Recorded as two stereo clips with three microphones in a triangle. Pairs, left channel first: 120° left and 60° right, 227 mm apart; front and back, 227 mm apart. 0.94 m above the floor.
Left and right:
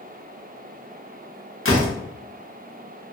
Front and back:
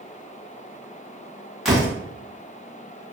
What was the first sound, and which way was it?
A door slam, 90° left.